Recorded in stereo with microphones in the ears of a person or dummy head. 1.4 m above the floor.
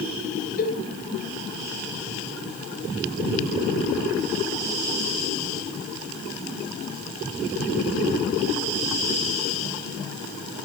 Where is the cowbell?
50° left (ahead or behind), 9 m.